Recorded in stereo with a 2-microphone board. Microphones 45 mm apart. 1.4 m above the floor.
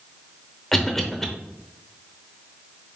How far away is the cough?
About 0.9 m.